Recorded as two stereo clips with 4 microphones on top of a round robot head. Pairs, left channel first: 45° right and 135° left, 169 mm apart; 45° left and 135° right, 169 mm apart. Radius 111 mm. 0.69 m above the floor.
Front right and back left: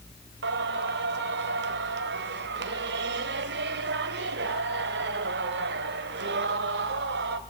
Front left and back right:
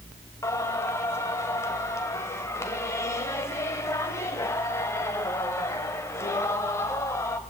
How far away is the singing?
About 1.4 m.